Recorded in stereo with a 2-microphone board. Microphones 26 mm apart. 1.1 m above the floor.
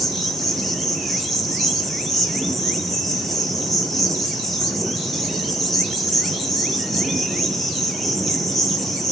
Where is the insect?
15° left (ahead or behind), 1.1 m.